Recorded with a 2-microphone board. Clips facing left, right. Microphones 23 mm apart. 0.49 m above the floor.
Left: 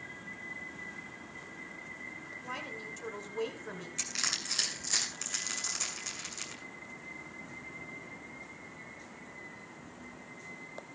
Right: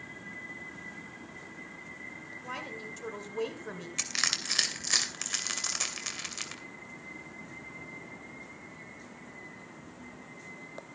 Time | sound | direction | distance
2.4 | a woman speaking | 10° right (ahead or behind) | 2.5 m
4.0 | crushing | 35° right (ahead or behind) | 2.5 m